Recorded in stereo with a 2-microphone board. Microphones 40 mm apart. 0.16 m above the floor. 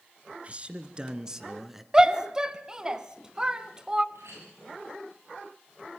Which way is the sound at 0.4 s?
30° right (ahead or behind).